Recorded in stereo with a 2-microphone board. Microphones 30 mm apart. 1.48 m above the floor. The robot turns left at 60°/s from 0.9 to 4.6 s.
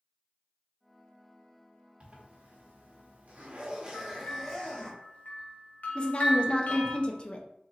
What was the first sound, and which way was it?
A zipper, 45° right.